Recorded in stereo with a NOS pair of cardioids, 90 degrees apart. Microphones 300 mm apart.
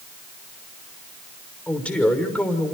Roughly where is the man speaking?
Ahead.